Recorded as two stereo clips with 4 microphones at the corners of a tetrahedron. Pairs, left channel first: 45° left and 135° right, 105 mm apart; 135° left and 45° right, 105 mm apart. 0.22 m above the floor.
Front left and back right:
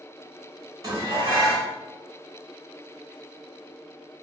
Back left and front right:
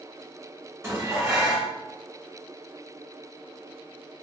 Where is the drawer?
No drawer in this recording.